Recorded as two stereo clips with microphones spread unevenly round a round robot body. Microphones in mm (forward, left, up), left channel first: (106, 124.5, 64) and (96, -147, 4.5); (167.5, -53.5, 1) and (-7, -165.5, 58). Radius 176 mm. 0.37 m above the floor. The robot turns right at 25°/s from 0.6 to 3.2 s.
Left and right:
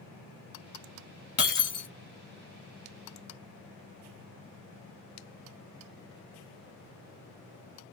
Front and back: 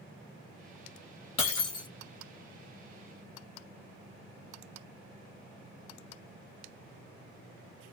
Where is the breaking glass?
40° left, 1.9 m; by 1.9 s 55° left, 1.9 m.